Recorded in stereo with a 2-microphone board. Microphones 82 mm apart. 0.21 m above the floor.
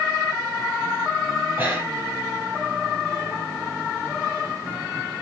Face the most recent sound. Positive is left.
turn(degrees=-25)  # may be behind; listen again after turning